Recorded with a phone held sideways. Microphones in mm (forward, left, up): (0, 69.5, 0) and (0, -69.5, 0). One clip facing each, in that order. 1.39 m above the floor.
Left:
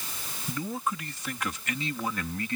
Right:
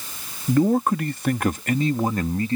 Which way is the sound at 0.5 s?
65° right (ahead or behind).